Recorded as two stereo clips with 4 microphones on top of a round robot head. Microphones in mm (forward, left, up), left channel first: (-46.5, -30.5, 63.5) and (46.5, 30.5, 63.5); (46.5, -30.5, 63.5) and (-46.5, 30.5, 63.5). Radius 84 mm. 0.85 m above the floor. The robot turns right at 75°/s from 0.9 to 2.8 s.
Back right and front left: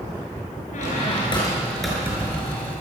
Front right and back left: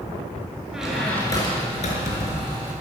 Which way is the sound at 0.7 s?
125° right.